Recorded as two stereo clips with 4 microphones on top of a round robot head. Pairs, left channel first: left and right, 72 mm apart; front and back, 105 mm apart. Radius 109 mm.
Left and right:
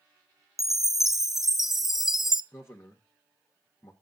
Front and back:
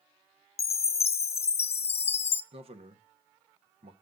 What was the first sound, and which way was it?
A chime, 5° right.